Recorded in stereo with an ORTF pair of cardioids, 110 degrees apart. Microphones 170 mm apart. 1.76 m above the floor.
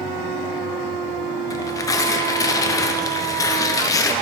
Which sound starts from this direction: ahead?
Tearing paper, at 1.5 s.